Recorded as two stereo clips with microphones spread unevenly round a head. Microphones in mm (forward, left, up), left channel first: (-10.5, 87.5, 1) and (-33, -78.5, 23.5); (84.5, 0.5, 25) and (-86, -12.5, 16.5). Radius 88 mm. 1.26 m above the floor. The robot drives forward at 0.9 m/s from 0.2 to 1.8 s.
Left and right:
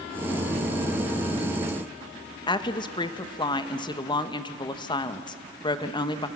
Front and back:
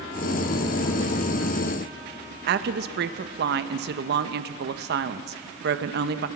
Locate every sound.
2.5 s a woman speaking: 150° left, 1.0 m